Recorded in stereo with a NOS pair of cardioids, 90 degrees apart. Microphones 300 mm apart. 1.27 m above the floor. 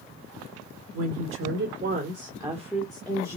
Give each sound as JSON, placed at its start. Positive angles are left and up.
{"t": 0.9, "sound": "a woman speaking", "azimuth_deg": -55, "distance_m": 1.1}